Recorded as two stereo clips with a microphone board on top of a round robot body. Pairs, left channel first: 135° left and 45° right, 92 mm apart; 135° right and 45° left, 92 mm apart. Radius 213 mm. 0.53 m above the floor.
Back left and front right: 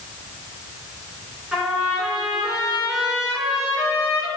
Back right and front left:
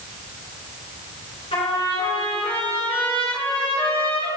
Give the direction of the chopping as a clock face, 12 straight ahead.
I don't hear chopping.